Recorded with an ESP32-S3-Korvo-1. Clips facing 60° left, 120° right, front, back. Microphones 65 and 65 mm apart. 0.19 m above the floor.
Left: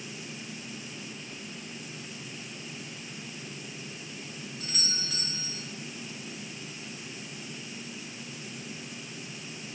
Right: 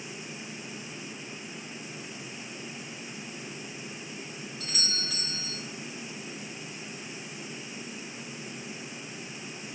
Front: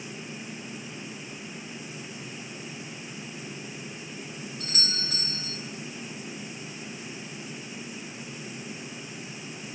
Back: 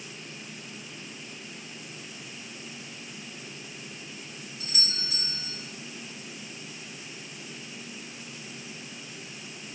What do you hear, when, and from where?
4.6 s a doorbell: 40° right, 3 m